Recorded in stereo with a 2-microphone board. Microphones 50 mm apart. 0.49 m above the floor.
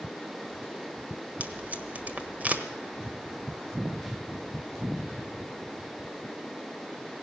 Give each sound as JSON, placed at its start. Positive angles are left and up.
{"t": 1.4, "sound": "tape being pulled", "side_deg": -30, "distance_m": 1.3}